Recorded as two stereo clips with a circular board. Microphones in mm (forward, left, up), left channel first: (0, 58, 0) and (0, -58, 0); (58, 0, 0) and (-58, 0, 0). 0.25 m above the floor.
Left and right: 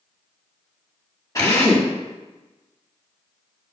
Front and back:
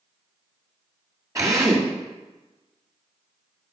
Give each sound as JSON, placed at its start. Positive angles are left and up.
{"t": 1.4, "sound": "a drill", "azimuth_deg": 135, "distance_m": 2.0}